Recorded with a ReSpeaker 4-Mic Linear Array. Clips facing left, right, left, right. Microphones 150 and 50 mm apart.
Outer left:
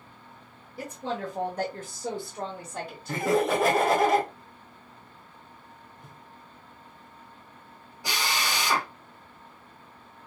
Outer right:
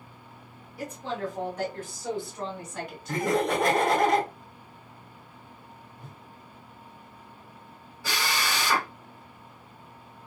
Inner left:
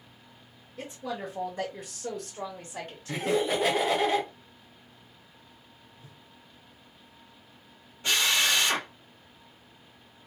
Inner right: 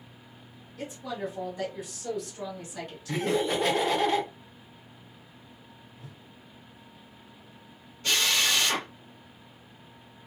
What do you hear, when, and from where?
0.8 s a woman speaking: 45° left (ahead or behind), 1.2 m; by 3.4 s 30° left (ahead or behind), 1.4 m
3.1 s laughter: 5° left (ahead or behind), 1.0 m
6.0 s a whoosh: 65° right (ahead or behind), 0.8 m
8.0 s a drill: 20° left (ahead or behind), 1.3 m